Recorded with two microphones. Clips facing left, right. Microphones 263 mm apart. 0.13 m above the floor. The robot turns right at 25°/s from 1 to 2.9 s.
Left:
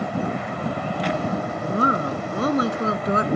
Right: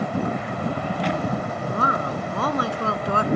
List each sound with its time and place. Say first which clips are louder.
1.7 s a woman speaking: left 5 dB; 100° left, 1.4 m; by 3.3 s 130° left, 1.4 m